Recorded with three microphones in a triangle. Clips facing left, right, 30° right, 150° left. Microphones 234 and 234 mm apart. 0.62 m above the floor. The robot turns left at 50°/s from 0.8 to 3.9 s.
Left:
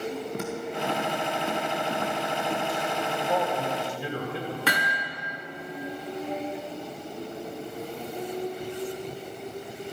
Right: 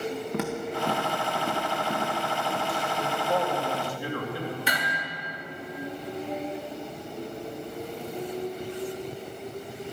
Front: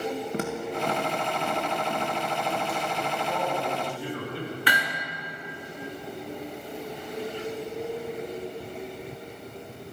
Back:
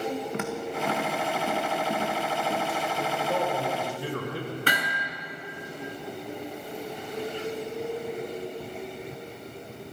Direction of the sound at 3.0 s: 160° right.